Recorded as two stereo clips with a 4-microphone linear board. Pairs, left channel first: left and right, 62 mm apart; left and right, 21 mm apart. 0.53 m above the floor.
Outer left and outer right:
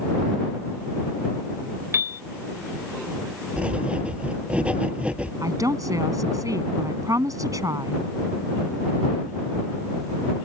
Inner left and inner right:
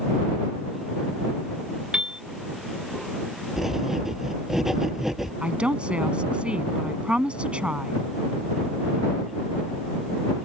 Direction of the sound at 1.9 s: 45° right (ahead or behind).